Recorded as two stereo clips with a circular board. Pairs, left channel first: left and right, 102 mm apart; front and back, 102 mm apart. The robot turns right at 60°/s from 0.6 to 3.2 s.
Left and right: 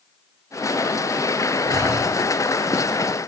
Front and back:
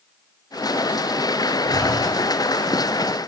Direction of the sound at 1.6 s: 50° right.